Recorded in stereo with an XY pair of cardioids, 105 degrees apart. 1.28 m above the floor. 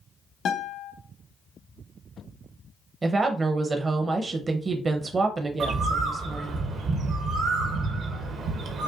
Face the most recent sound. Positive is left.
turn(degrees=-65)